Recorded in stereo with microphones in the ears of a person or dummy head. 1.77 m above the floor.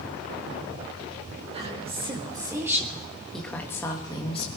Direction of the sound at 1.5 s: 30° right (ahead or behind).